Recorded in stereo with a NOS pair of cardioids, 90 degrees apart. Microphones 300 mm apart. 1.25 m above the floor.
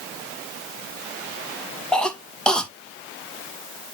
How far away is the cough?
About 2 m.